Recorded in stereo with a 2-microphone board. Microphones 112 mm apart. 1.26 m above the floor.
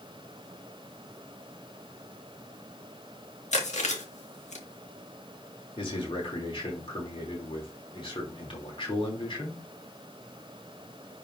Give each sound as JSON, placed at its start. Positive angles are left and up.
{"t": 3.5, "sound": "chewing", "side_deg": 85, "distance_m": 1.8}
{"t": 5.8, "sound": "a man speaking", "side_deg": 50, "distance_m": 3.0}